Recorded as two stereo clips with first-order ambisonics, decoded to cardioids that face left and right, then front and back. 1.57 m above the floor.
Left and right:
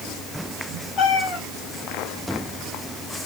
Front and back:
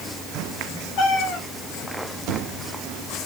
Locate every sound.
1.0 s a cat meowing: 25° left, 2.5 m